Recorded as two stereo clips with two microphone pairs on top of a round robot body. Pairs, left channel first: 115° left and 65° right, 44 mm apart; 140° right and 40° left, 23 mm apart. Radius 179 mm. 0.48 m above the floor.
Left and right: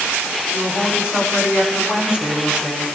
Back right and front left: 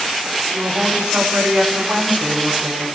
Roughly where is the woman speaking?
Left.